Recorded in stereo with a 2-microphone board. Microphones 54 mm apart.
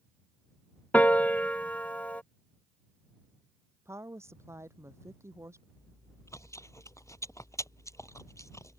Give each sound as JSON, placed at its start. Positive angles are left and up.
{"t": 0.9, "sound": "a piano", "side_deg": 30}
{"t": 3.9, "sound": "a woman speaking", "side_deg": -55}
{"t": 5.8, "sound": "chewing", "side_deg": 70}